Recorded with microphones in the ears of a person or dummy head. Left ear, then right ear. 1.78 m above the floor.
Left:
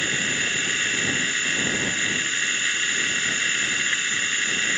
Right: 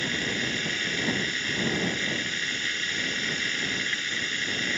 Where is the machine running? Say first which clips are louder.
Left 4 dB; 35° left (ahead or behind).